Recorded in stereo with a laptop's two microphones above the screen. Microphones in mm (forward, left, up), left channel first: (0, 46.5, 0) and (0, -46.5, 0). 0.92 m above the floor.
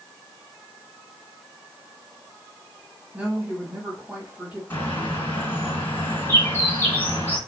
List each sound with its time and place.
3.1 s a woman speaking: 15° right (ahead or behind), 1.4 m
4.7 s a bird: 25° left (ahead or behind), 2.5 m